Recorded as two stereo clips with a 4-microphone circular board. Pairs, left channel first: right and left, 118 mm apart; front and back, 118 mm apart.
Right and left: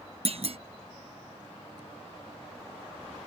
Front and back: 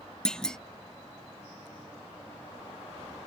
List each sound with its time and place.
0.2 s a clunk: 80° left